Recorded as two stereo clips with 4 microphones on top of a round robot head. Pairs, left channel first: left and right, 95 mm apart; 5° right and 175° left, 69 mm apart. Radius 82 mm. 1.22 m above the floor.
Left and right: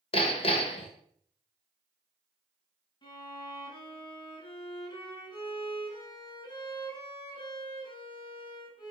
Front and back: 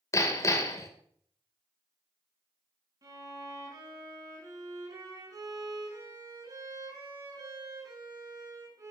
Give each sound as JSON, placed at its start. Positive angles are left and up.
{"t": 0.1, "sound": "hammering", "azimuth_deg": 45, "distance_m": 2.0}
{"t": 3.0, "sound": "a violin", "azimuth_deg": 135, "distance_m": 5.5}